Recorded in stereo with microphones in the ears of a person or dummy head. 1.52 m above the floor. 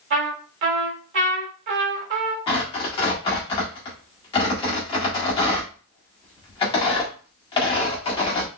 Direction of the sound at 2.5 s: 25° left (ahead or behind).